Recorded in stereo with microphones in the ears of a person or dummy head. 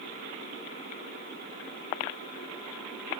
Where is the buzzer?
No buzzer in this recording.